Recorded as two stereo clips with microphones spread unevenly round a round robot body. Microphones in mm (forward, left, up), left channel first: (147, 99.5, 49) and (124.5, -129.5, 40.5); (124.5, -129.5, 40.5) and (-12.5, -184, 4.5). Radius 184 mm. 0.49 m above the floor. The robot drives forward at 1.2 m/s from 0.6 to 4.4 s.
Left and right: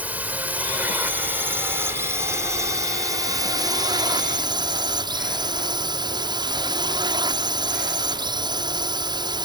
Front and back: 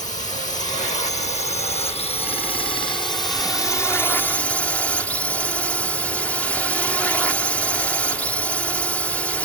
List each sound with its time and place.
0.0 s a drone: 15° right; by 9.4 s 80° right